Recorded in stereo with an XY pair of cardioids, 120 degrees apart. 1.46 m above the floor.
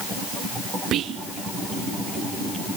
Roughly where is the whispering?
Ahead right.